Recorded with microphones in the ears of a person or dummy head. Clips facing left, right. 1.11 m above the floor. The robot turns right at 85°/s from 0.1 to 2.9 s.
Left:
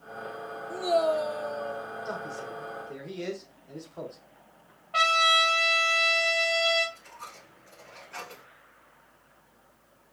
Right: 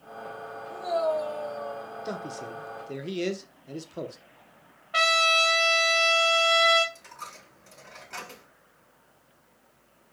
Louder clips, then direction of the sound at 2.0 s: Right 1 dB; 35° right (ahead or behind).